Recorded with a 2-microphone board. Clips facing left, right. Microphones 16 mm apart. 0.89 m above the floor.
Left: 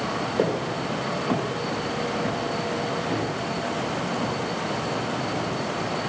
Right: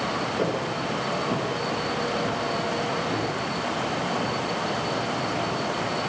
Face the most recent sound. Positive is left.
turn(degrees=35)  # may be behind; listen again after turning